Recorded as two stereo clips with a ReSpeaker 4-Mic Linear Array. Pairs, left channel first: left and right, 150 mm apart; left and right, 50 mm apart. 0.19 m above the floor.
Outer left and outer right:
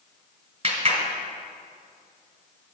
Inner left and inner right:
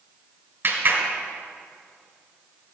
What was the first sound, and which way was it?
A clap, 45° right (ahead or behind).